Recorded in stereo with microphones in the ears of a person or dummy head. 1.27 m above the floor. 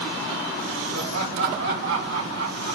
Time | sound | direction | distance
0.9 | laughter | 70° right (ahead or behind) | 5 m